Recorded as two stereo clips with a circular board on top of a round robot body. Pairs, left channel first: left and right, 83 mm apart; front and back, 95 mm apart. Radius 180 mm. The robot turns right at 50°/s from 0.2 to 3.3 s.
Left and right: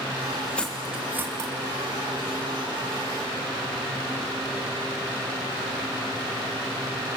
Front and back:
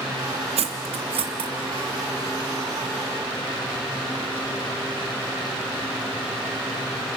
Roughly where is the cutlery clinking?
Behind.